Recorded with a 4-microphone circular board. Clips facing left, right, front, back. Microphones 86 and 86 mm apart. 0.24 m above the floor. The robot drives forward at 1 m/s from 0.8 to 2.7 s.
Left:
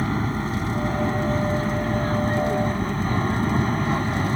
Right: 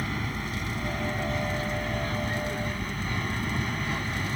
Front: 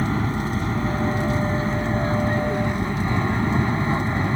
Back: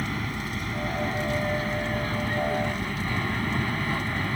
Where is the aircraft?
50° left; by 4.4 s 55° left.